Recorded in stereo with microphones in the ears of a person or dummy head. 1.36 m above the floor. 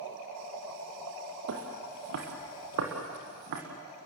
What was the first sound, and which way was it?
Footsteps, 60° right (ahead or behind).